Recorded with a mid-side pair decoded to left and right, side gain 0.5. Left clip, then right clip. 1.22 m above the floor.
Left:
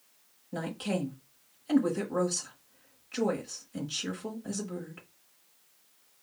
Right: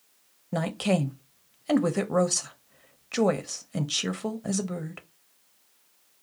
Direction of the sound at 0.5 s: 60° right.